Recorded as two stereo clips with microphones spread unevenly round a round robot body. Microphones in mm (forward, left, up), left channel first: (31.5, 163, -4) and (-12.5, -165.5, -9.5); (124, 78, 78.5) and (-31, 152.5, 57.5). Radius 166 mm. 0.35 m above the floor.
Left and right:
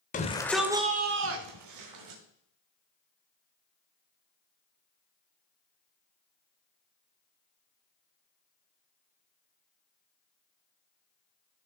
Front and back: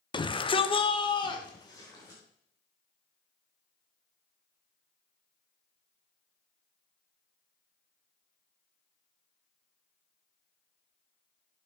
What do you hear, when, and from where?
0.1 s a shout: 30° left, 1.0 m; by 2.2 s 100° right, 1.7 m